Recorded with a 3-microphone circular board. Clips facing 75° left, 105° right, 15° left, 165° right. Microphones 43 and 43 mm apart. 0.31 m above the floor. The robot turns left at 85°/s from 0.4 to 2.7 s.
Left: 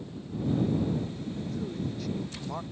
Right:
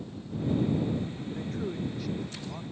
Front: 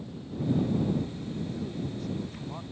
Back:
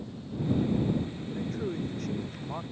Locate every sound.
1.3 s a man speaking: 125° right; by 2.6 s 120° left